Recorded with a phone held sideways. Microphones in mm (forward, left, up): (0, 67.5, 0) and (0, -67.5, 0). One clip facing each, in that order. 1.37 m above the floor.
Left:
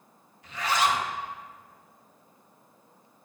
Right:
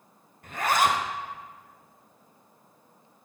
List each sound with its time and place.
0.4 s a zipper: 50° right (ahead or behind), 0.7 m